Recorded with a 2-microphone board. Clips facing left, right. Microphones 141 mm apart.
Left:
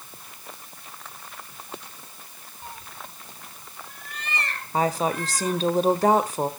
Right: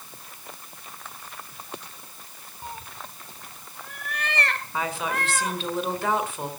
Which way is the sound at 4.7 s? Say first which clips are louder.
Left 7 dB; 40° left (ahead or behind).